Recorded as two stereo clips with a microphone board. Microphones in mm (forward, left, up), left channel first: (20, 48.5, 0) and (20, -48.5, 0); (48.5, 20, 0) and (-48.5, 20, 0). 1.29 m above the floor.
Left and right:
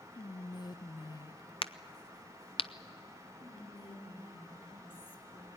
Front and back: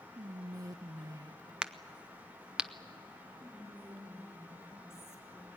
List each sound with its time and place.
0.1 s whispering: 130° left, 0.5 m
1.6 s a crack: 100° left, 0.6 m
3.4 s whispering: 65° left, 3.5 m